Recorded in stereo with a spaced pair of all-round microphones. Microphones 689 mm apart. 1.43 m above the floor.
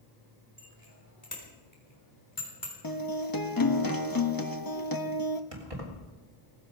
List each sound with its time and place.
0.6 s a bicycle bell: 25° left (ahead or behind), 4.5 m; by 2.7 s 30° left (ahead or behind), 3.5 m
2.8 s a guitar: 30° left (ahead or behind), 1.2 m
5.5 s keys jangling: 50° right (ahead or behind), 3.5 m